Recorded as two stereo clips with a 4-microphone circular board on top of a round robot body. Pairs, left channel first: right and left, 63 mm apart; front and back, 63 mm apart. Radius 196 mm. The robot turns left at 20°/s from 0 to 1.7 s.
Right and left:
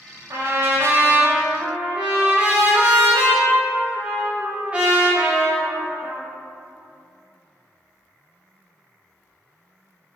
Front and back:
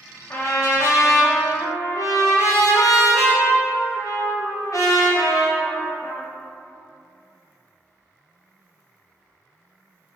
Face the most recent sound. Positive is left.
turn(degrees=20)